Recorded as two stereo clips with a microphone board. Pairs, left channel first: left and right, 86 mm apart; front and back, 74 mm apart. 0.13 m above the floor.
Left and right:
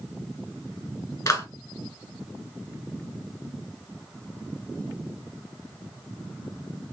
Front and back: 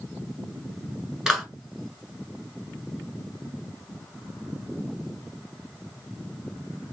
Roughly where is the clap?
Left.